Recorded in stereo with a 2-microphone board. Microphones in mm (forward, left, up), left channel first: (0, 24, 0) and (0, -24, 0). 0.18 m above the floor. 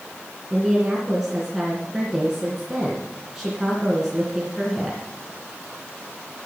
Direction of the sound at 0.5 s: 5° right (ahead or behind).